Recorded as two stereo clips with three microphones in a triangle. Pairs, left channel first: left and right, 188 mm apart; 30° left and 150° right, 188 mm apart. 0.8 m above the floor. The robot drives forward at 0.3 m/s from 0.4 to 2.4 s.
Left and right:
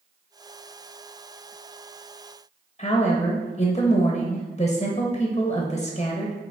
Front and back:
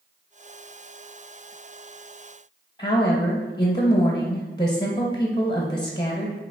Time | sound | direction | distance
2.8 | a woman speaking | 75° left | 0.6 m